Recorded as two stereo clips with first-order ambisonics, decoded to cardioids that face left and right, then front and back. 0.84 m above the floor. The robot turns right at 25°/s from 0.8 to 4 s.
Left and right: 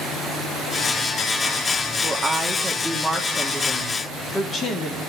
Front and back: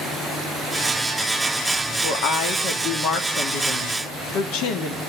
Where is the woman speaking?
25° right, 1.6 m; by 5.0 s 25° left, 1.6 m.